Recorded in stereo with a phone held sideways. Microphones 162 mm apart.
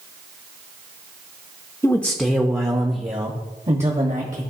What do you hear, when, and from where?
1.8 s a man speaking: 15° left (ahead or behind), 0.6 m; by 4.4 s 50° right (ahead or behind), 1.5 m